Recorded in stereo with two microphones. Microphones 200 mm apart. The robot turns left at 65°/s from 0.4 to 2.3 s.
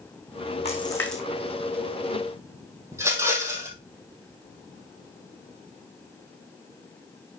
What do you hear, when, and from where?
0.7 s a splash: 35° left (ahead or behind), 1.5 m; by 1.2 s 5° right (ahead or behind), 1.5 m
2.9 s a rattle: 15° right (ahead or behind), 2 m